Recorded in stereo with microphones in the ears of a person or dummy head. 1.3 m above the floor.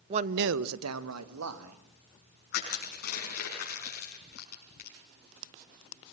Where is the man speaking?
25° right (ahead or behind), 0.6 m; by 1.8 s 85° right, 2.5 m.